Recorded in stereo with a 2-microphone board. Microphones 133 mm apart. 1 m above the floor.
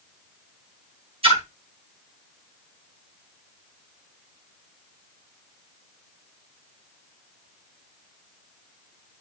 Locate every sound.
1.2 s a splash: 45° right (ahead or behind), 3 m